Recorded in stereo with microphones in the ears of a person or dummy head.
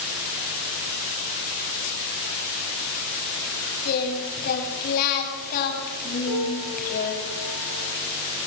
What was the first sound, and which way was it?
Singing, 50° left (ahead or behind).